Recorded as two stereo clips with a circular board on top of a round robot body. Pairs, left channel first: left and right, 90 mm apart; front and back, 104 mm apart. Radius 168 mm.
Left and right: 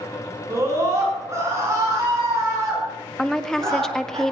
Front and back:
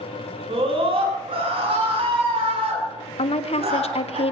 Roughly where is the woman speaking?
Ahead.